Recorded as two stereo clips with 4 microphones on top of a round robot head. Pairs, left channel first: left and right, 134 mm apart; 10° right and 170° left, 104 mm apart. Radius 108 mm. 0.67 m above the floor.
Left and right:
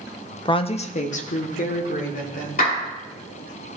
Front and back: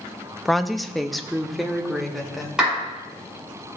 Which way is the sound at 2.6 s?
85° left.